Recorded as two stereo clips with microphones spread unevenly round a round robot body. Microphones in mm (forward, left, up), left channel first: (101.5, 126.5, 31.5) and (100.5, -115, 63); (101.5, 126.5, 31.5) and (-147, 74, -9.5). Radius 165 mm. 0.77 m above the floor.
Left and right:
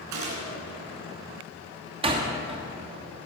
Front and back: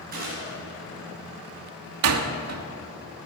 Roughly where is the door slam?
Behind.